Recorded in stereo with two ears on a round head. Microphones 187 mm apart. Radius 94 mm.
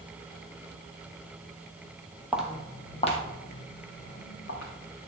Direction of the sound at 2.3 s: 5° right (ahead or behind).